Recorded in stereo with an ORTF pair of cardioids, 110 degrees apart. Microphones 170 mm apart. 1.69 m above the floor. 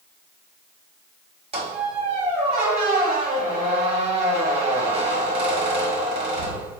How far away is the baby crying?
No baby crying in this recording.